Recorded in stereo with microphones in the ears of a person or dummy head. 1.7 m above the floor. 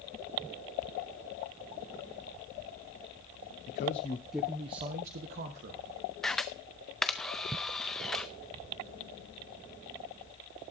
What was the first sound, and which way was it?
A man speaking, 40° left (ahead or behind).